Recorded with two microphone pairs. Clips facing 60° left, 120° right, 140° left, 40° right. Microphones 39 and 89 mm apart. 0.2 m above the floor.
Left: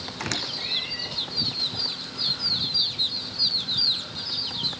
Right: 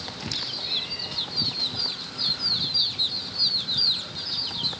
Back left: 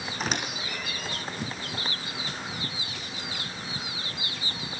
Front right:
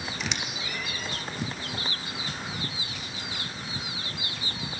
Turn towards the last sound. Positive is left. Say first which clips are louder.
# left 4 dB, back left 7 dB
turn(degrees=90)